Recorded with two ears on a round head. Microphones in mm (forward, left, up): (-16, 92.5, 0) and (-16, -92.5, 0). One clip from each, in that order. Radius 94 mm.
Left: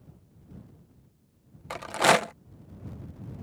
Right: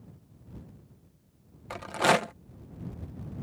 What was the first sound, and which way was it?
A rattle, 20° left (ahead or behind).